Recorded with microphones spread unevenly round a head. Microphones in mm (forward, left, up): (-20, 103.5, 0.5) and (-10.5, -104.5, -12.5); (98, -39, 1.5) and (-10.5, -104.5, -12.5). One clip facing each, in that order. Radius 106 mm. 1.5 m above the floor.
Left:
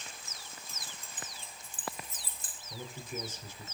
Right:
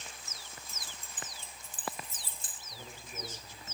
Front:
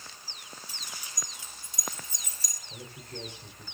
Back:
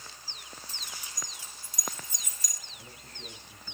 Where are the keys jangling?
50° right, 3.5 m; by 2.6 s 20° right, 3.5 m.